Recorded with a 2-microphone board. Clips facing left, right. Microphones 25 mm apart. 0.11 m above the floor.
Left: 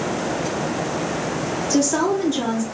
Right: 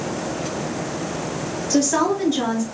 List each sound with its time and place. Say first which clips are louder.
1.7 s a woman speaking: right 1 dB; 20° right (ahead or behind), 1.7 m